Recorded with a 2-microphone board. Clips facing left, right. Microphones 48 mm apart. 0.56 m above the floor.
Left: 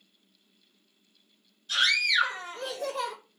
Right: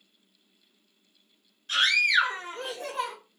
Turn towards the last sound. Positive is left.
turn(degrees=-30)  # may be behind; listen again after turning